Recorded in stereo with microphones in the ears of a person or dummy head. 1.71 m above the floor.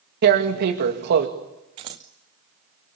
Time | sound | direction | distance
0.2 | tearing paper | 55° right (ahead or behind) | 2.5 m
1.8 | scissors | 25° right (ahead or behind) | 0.9 m